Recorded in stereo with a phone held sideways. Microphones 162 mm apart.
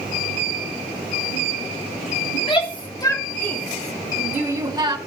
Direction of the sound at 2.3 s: 35° left (ahead or behind).